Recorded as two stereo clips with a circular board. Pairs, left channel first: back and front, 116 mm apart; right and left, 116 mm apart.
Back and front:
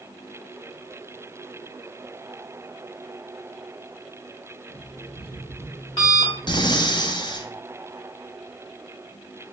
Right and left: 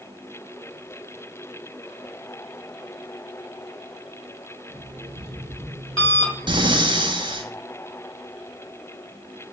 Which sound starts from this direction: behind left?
Breathing, at 6.5 s.